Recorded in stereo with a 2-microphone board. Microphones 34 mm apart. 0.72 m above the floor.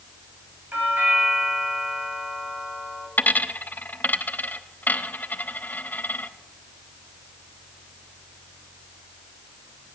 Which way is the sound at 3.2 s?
60° left (ahead or behind).